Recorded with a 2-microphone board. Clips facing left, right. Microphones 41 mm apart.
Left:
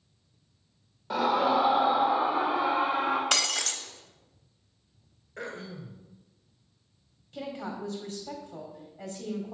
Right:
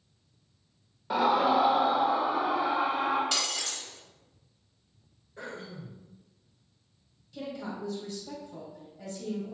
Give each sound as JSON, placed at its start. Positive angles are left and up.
{"t": 1.1, "sound": "a scream", "side_deg": -10, "distance_m": 1.0}
{"t": 3.3, "sound": "breaking glass", "side_deg": 85, "distance_m": 0.6}
{"t": 5.4, "sound": "throat clearing", "side_deg": 85, "distance_m": 1.4}
{"t": 7.3, "sound": "a woman speaking", "side_deg": 50, "distance_m": 1.8}